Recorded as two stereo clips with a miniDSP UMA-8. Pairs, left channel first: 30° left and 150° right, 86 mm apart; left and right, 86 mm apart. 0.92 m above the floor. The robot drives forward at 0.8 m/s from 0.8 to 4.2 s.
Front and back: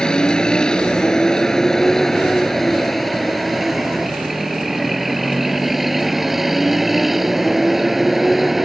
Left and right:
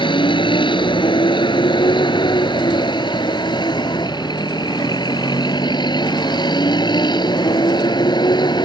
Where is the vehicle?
110° left; by 8.6 s 120° left.